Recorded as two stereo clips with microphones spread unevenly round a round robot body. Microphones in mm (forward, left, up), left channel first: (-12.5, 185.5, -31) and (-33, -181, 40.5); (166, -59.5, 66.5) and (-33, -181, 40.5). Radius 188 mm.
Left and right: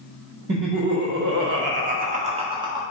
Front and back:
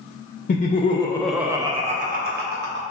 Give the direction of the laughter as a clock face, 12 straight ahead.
1 o'clock.